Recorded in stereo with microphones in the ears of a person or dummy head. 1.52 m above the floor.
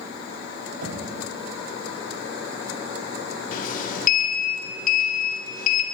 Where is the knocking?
75° right (ahead or behind), 3 m.